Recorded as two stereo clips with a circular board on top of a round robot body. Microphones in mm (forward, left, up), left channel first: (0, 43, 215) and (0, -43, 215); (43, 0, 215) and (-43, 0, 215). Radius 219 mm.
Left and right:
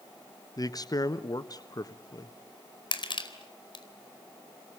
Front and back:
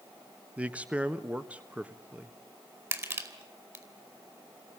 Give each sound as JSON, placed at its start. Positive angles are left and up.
{"t": 0.6, "sound": "a man speaking", "azimuth_deg": 110, "distance_m": 1.6}
{"t": 2.9, "sound": "crushing", "azimuth_deg": 120, "distance_m": 4.5}